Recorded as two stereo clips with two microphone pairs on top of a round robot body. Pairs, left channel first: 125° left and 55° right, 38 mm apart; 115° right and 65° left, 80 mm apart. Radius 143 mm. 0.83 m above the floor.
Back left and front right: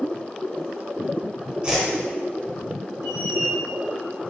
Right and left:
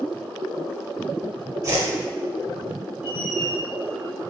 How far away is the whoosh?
About 2 m.